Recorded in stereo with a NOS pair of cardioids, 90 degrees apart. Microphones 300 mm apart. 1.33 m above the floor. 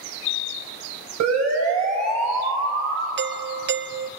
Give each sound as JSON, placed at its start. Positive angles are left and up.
{"t": 1.2, "sound": "a siren", "azimuth_deg": -65, "distance_m": 6.5}
{"t": 3.2, "sound": "a doorbell", "azimuth_deg": -40, "distance_m": 0.6}